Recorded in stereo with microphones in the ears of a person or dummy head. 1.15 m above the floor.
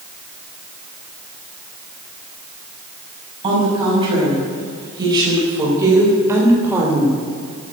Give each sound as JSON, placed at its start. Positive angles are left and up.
{"t": 3.4, "sound": "a woman speaking", "side_deg": -25, "distance_m": 7.0}